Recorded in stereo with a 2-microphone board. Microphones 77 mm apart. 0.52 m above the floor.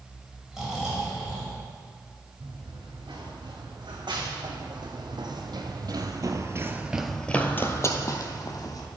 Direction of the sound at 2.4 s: 75° right (ahead or behind).